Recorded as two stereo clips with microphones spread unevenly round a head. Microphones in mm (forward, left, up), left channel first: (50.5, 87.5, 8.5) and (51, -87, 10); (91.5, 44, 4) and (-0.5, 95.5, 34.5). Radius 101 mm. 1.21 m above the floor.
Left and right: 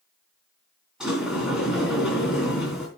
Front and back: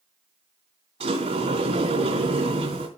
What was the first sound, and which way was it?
A sliding door, 175° right.